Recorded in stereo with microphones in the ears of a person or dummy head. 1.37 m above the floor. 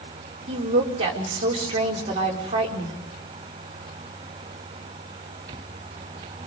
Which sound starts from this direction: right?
A woman speaking, at 0.5 s.